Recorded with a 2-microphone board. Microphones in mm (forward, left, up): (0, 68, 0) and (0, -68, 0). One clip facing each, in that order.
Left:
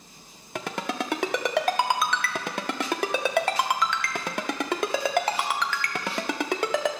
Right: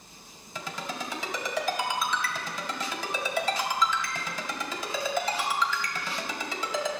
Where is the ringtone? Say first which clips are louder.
Left 6 dB; 65° left (ahead or behind), 0.7 m.